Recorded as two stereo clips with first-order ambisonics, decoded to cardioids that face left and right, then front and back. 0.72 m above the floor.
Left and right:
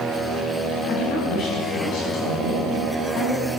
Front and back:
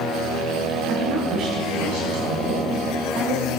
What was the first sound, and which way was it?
A woman speaking, 150° left.